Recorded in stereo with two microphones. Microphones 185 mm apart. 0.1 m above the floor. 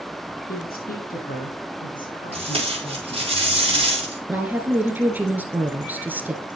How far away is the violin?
I don't hear a violin.